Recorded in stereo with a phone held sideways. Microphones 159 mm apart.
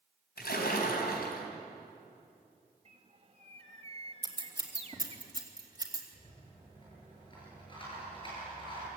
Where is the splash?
75° left (ahead or behind), 3.5 m.